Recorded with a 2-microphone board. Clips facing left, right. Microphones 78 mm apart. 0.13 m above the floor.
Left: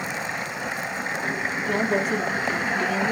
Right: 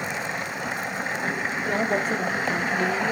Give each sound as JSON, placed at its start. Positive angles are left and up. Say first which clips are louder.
{"t": 1.7, "sound": "a woman speaking", "louder": "left 1 dB", "side_deg": -35, "distance_m": 2.5}